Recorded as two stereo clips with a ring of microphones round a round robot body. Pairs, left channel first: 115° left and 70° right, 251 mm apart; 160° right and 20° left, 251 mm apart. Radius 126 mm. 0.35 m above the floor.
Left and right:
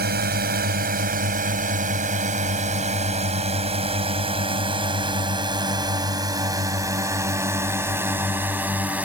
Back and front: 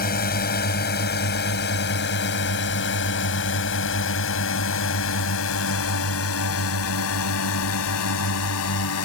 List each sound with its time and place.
0.0 s a drone: 110° right; by 9.0 s 150° right